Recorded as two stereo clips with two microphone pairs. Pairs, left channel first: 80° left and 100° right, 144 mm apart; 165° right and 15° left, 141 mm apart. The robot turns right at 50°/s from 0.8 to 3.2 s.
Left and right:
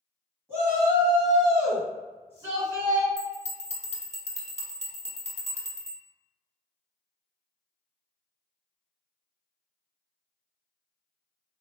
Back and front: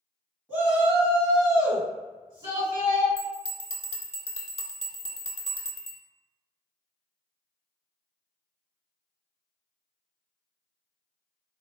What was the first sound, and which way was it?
A shout, 50° right.